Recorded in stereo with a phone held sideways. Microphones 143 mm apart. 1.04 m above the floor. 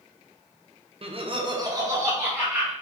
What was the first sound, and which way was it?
Laughter, 45° right (ahead or behind).